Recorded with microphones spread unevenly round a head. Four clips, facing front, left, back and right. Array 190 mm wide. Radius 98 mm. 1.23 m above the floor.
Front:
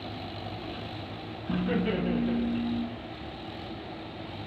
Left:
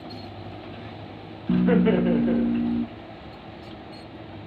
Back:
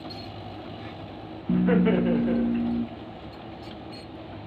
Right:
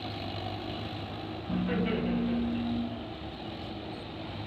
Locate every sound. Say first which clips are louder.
1.5 s laughter: left 11 dB, back 7 dB; 110° left, 1.1 m